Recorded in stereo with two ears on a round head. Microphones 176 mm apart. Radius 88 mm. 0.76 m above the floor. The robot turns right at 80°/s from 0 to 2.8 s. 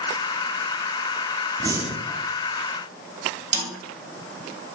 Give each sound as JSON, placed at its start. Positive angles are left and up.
{"t": 1.6, "sound": "breathing", "azimuth_deg": -25, "distance_m": 0.5}
{"t": 3.5, "sound": "a snare drum", "side_deg": -35, "distance_m": 2.0}